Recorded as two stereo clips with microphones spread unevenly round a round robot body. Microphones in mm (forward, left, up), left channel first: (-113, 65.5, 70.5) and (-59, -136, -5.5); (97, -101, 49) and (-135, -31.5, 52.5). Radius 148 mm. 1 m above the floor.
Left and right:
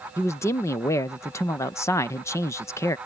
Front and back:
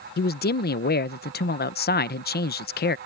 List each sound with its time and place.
0.2 s a man speaking: 10° left